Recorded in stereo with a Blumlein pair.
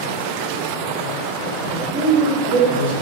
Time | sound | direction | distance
1.7 | a man speaking | 60° right | 1.2 m